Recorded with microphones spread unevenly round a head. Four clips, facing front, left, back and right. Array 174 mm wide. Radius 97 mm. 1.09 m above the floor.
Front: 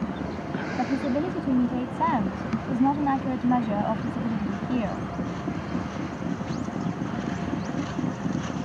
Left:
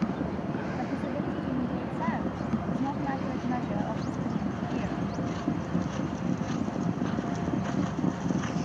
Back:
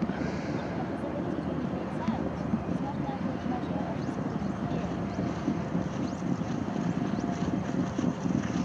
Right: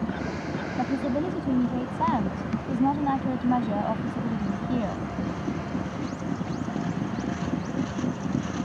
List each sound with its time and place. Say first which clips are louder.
0.8 s a woman speaking: right 5 dB, front 7 dB; 30° right